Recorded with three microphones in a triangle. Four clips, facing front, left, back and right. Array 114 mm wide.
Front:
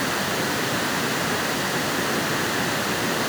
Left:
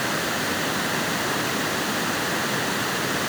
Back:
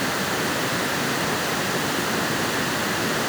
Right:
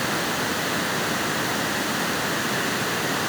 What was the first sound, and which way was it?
Only background noise.